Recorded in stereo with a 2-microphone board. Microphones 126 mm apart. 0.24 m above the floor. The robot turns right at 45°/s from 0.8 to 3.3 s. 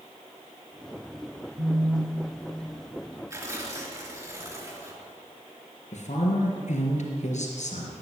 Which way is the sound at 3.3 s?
25° right (ahead or behind).